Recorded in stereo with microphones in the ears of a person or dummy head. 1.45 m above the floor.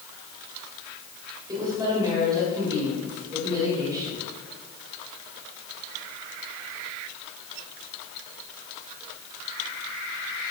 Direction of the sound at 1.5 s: 20° right (ahead or behind).